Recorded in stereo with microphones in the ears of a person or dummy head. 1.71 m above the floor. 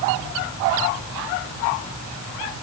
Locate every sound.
Only background noise.